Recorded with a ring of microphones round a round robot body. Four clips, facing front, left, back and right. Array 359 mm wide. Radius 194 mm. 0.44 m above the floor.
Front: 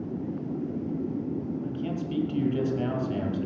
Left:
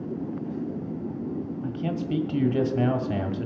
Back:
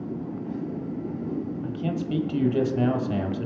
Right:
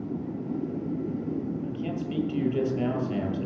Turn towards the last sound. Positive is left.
turn(degrees=125)